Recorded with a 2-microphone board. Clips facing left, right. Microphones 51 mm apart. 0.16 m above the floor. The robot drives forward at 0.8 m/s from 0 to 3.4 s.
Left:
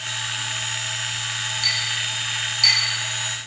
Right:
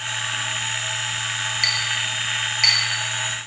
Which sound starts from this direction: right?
A clink, at 1.6 s.